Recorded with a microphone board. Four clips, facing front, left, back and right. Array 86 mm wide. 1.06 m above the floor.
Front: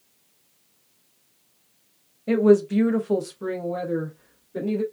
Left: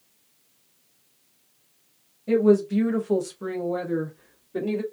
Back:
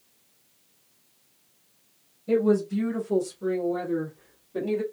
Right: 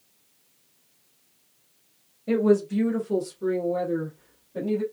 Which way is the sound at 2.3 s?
5° right.